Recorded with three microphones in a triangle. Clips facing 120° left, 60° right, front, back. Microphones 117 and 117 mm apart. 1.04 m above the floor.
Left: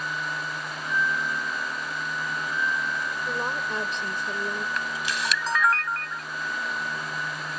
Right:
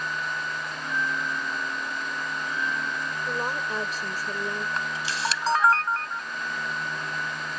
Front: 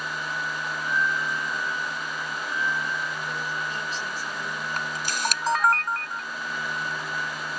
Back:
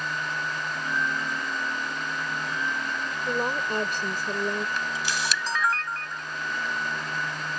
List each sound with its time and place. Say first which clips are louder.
0.8 s a bell: left 3 dB, front 3 dB; 120° right
3.2 s a woman speaking: right 1 dB, back 4 dB; 145° right
4.8 s a camera shutter: even, even; 15° right